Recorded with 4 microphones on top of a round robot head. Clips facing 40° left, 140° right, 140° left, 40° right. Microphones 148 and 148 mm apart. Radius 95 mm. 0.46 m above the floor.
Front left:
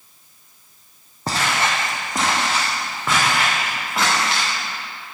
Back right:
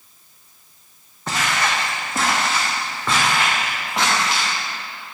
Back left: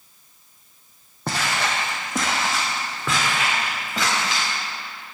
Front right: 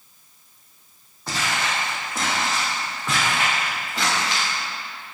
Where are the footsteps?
100° left, 1.7 m; by 4.5 s 130° left, 5 m.